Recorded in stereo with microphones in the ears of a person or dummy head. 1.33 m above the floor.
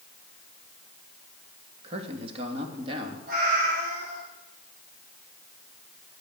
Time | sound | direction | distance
1.8 | a man speaking | 35° right (ahead or behind) | 2.5 m
3.3 | a cat meowing | 55° right (ahead or behind) | 5.5 m